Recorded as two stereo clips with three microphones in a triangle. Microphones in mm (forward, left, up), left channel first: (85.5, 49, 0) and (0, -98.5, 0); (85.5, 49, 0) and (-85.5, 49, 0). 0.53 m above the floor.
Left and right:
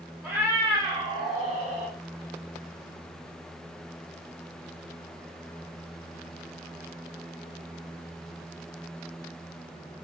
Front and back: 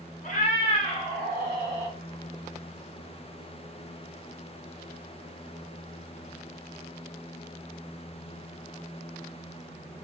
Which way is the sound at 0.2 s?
40° right.